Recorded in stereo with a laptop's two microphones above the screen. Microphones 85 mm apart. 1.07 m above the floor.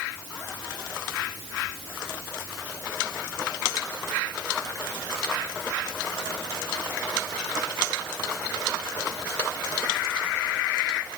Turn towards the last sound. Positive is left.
No sound to turn to.